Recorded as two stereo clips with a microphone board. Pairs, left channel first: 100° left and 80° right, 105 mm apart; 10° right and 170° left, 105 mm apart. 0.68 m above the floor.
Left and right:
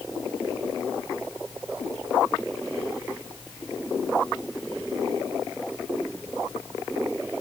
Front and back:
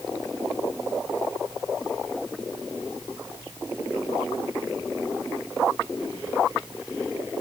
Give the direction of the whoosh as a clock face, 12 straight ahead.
No whoosh in this recording.